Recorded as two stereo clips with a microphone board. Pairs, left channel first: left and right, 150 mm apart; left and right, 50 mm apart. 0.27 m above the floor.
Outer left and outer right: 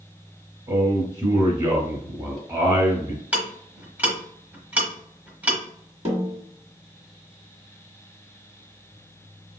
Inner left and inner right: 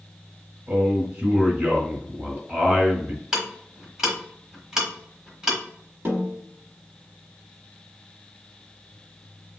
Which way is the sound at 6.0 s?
45° right (ahead or behind).